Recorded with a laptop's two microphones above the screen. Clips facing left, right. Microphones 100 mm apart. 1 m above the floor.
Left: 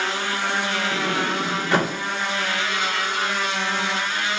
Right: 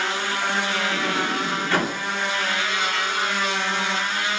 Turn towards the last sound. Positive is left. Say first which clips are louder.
# left 1 dB
turn(degrees=20)  # may be behind; listen again after turning